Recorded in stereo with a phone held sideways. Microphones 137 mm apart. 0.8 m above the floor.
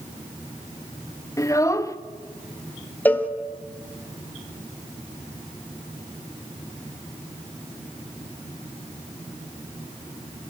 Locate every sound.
1.4 s a child speaking: 25° left (ahead or behind), 0.6 m
3.0 s a cowbell: 15° left (ahead or behind), 0.9 m